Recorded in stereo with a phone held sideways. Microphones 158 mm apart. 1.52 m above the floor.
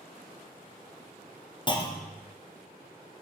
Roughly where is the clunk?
Left.